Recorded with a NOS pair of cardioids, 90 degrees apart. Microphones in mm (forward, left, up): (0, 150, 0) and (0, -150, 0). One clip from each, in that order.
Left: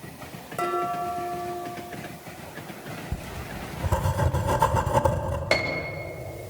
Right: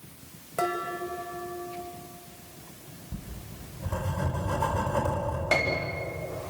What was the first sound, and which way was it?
Dishes clattering, 10° right.